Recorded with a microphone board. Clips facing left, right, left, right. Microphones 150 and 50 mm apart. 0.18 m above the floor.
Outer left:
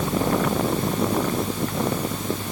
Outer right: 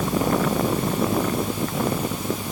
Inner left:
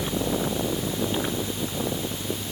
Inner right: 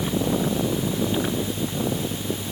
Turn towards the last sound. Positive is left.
No sound to turn to.